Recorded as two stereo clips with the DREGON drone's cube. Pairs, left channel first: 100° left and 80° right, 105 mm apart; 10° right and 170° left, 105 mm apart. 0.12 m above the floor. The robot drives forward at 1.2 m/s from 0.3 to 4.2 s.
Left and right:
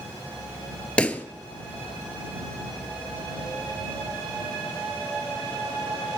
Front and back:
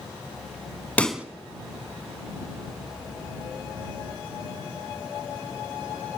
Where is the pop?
40° left, 0.6 m; by 1.2 s 135° left, 0.6 m.